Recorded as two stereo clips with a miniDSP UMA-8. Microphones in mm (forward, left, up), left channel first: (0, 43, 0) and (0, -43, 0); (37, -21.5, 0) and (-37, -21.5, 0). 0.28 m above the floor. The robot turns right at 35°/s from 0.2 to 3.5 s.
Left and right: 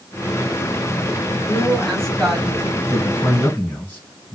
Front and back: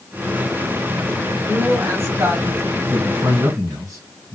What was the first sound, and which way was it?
A woman speaking, 150° left.